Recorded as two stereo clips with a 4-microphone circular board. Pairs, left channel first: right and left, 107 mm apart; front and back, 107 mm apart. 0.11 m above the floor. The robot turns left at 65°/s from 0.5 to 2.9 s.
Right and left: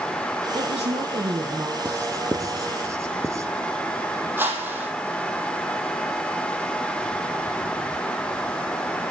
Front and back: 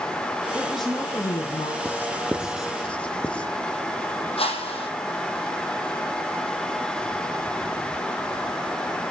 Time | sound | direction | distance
0.6 | a woman speaking | 105° left | 3.5 m
1.9 | writing | 135° left | 1.6 m
4.4 | a whoosh | 20° left | 5 m